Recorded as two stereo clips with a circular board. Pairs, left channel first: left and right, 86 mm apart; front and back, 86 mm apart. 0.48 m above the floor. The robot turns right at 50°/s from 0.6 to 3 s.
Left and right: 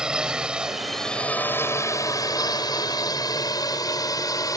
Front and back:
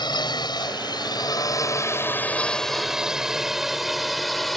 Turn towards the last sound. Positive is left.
turn(degrees=85)